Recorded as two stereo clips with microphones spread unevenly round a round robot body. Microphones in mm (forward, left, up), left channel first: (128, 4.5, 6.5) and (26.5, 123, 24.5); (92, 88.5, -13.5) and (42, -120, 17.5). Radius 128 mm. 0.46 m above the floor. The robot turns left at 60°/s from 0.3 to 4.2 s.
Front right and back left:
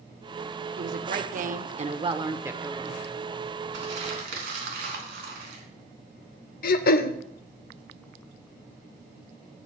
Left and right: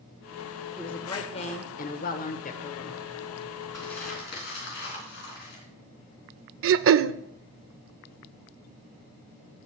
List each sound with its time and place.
0.8 s a woman speaking: 160° left, 1.2 m; by 3.0 s 20° left, 1.2 m
3.7 s crumpling: 155° left, 3.5 m; by 5.6 s 130° left, 3.5 m
6.6 s throat clearing: 75° right, 0.5 m